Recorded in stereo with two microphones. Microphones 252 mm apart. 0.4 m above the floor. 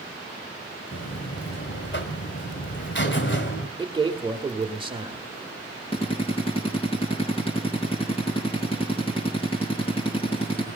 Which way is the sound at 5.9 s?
25° left (ahead or behind).